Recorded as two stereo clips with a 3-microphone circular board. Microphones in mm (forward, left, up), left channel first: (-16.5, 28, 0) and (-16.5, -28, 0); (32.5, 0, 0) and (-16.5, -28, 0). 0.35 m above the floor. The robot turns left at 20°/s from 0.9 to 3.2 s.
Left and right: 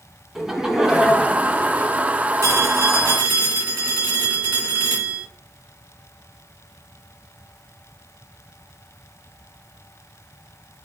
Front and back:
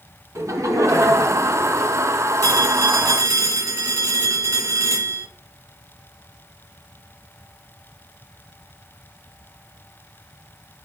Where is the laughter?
170° right, 2.5 m; by 2.1 s 165° left, 2.5 m.